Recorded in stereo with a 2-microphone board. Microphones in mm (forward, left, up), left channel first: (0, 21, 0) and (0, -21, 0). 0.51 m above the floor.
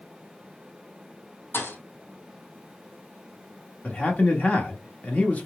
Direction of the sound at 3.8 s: 35° left (ahead or behind).